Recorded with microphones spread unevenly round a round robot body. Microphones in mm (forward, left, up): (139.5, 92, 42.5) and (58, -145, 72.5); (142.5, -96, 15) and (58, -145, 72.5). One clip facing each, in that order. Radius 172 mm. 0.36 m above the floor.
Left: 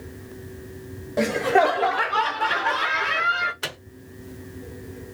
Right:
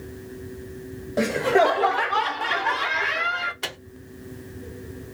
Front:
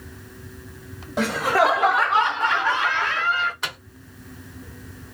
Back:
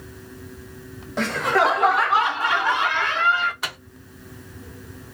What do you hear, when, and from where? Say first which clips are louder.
1.2 s laughter: even, front 1 dB; 15° right, 1.3 m; by 3.5 s 125° left, 1.0 m
3.6 s a microwave: even, even; 5° left, 0.8 m